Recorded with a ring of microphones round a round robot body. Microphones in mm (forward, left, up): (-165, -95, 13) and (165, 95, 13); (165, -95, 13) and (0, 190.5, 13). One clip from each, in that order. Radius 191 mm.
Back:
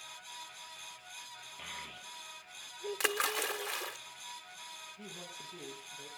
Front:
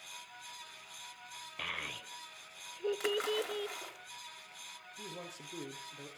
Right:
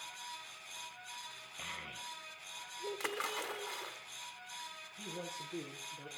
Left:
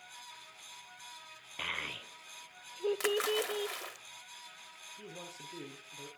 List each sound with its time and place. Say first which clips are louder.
1.6 s a child speaking: front 7 dB, left 7 dB; 95° left, 0.6 m
3.0 s a splash: back 4 dB, left 6 dB; 170° left, 1.2 m
5.0 s a man speaking: front 1 dB, right 5 dB; 55° left, 6 m